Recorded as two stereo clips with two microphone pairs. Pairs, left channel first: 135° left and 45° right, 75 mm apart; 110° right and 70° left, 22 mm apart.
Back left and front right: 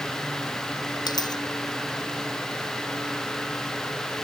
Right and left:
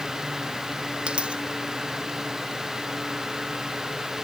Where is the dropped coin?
115° left.